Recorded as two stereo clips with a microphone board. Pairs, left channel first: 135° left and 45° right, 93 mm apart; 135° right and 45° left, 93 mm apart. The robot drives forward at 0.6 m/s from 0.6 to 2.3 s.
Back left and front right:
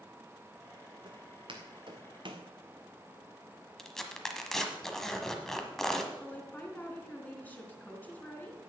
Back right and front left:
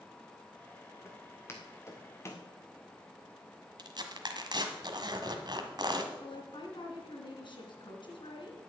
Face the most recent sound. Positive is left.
turn(degrees=-155)